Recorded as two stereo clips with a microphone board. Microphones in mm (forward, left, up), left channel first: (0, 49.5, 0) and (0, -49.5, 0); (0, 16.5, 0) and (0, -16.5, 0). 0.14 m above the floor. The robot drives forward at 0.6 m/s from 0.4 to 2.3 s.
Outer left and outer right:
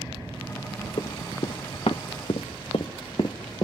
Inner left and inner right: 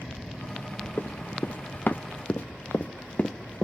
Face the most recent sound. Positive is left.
turn(degrees=40)  # may be behind; listen again after turning